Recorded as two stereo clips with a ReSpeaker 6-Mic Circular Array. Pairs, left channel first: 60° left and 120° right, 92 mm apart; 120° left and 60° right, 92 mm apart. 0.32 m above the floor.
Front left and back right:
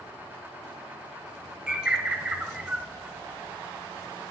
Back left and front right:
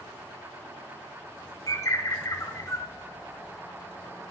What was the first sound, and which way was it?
A bird, 165° left.